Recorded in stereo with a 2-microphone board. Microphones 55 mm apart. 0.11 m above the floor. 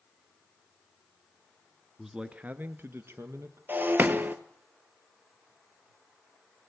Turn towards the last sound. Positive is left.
turn(degrees=-40)  # may be behind; listen again after turning